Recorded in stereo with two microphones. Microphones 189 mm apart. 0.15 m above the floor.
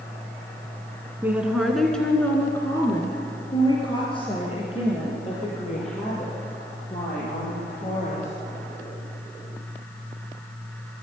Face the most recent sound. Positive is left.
turn(degrees=40)  # may be behind; listen again after turning